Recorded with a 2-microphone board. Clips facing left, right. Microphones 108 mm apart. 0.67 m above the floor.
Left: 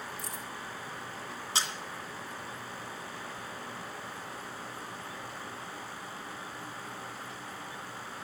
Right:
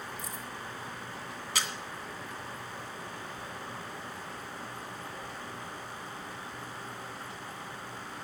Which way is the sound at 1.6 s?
30° left (ahead or behind).